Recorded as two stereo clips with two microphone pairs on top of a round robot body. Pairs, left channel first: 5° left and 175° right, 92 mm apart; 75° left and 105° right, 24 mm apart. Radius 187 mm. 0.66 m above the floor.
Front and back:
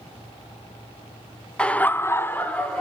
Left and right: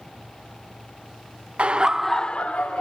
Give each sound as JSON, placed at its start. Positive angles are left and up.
{"t": 1.6, "sound": "laughter", "azimuth_deg": -75, "distance_m": 0.6}